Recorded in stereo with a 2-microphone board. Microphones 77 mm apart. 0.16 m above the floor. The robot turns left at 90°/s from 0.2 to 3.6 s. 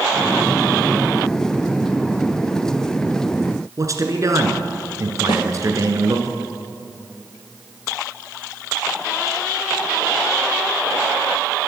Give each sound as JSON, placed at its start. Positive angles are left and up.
{"t": 3.8, "sound": "a man speaking", "side_deg": -45, "distance_m": 2.0}
{"t": 5.3, "sound": "a snare drum", "side_deg": 75, "distance_m": 2.5}